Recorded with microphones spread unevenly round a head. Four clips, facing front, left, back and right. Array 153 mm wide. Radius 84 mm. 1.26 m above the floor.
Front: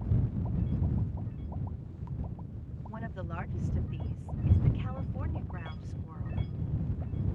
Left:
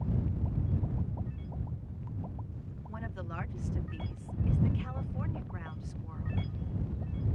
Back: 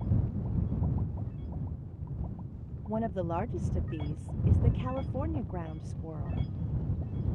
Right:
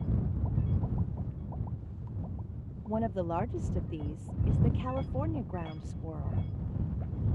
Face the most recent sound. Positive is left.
turn(degrees=-130)